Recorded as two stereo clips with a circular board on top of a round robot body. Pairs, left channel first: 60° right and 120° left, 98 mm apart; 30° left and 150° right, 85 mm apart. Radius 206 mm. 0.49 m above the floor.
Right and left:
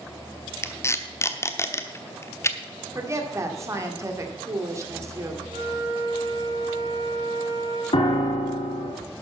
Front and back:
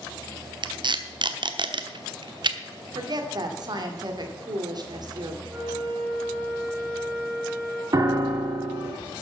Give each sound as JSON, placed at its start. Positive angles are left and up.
{"t": 0.6, "sound": "tape being pulled", "azimuth_deg": -125, "distance_m": 1.1}
{"t": 3.0, "sound": "a woman speaking", "azimuth_deg": 180, "distance_m": 2.5}
{"t": 5.5, "sound": "a flute", "azimuth_deg": 135, "distance_m": 3.5}
{"t": 7.9, "sound": "a piano", "azimuth_deg": -100, "distance_m": 1.9}